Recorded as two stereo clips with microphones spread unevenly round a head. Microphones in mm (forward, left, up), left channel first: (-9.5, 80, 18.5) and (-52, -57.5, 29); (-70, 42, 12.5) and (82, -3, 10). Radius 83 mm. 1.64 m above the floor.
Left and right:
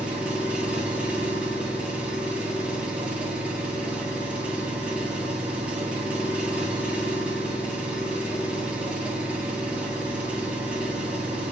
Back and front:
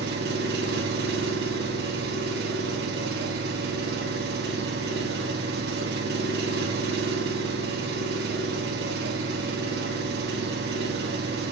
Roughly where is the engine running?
Ahead right.